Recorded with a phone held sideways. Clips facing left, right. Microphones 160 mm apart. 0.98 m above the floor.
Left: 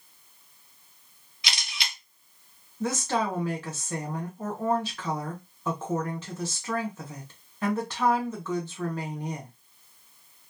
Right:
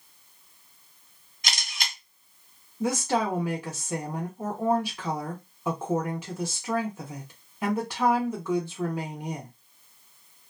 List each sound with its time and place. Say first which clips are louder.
1.4 s a camera shutter: right 1 dB; 45° right (ahead or behind), 0.6 m
2.8 s a woman speaking: right 2 dB; 10° right (ahead or behind), 0.6 m